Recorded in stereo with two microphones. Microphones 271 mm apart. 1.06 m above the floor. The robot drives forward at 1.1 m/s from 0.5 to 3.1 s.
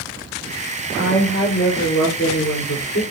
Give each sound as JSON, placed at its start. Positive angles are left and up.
{"t": 1.0, "sound": "a woman speaking", "side_deg": 45, "distance_m": 5.0}